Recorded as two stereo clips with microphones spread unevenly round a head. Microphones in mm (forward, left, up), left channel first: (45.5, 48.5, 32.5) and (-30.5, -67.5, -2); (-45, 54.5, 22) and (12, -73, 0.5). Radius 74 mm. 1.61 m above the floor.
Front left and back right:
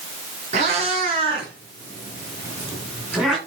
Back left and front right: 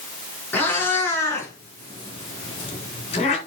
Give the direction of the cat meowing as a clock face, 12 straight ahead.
6 o'clock.